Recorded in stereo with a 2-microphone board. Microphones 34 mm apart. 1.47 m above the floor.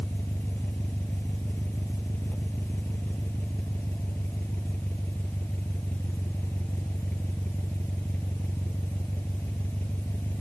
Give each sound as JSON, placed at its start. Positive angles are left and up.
{"t": 0.0, "sound": "an engine running", "side_deg": 80}